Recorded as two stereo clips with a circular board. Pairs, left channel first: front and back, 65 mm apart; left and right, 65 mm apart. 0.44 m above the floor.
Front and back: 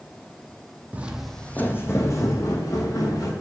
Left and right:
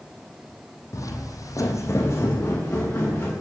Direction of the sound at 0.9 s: 120° left.